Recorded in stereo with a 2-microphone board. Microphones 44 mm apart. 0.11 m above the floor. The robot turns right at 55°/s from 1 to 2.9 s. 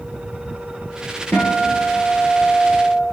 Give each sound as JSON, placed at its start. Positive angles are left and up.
{"t": 1.3, "sound": "a guitar", "azimuth_deg": 95, "distance_m": 1.1}